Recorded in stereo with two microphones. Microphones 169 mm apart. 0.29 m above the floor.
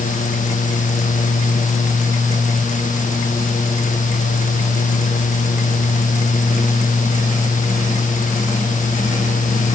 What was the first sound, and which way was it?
Only background noise.